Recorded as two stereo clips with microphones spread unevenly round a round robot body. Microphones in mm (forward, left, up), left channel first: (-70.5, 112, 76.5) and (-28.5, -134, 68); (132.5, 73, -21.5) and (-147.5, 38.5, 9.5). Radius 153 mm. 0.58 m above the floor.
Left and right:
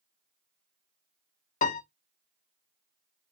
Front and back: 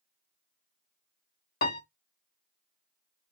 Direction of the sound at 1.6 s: 50° left.